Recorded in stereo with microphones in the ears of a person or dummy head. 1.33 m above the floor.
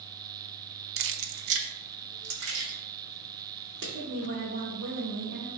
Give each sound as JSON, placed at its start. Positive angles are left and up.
{"t": 1.0, "sound": "keys jangling", "side_deg": -65, "distance_m": 0.6}
{"t": 3.9, "sound": "a woman speaking", "side_deg": -80, "distance_m": 2.0}